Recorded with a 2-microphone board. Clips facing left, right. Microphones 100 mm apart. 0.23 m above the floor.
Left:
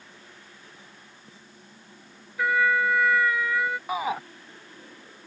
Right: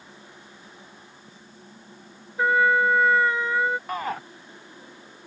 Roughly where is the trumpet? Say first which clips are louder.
Right 3 dB; right.